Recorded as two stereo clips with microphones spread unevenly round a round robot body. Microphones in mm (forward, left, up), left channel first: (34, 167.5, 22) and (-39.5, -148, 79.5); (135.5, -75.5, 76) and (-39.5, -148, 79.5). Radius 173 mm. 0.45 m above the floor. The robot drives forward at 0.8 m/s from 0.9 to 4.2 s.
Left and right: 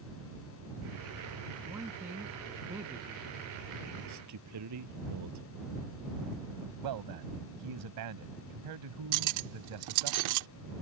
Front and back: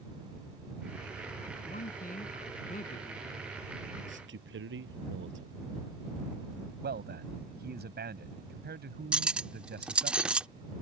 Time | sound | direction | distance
1.6 | a man speaking | 20° right | ?
4.1 | a man speaking | 145° right | ?
6.8 | a man speaking | 130° right | ?
9.1 | cutlery clinking | 70° right | ?